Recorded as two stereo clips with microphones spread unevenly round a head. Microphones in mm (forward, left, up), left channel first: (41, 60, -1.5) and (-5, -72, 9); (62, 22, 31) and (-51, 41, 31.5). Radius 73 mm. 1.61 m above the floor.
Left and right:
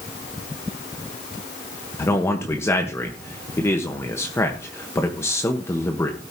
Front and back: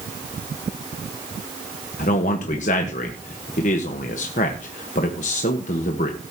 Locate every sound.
2.0 s a man speaking: straight ahead, 1.2 m